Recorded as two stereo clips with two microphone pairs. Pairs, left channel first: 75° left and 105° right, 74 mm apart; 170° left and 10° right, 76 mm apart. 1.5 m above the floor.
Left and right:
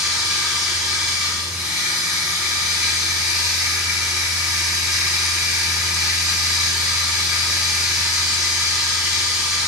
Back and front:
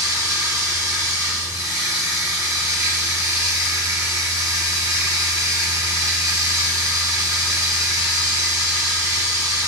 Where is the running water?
15° right, 1.3 m.